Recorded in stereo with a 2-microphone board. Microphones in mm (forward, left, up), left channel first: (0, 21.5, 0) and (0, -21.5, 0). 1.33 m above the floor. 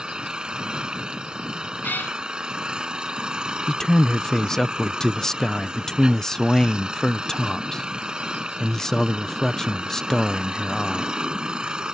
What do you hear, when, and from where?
0.0 s an engine running: 20° right (ahead or behind)
1.8 s a cat meowing: 45° left (ahead or behind)
3.7 s a man speaking: 10° left (ahead or behind)